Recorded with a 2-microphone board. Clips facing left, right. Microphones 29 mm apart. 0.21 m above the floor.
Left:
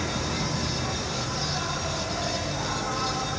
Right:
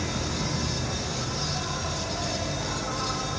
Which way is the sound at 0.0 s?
60° left (ahead or behind).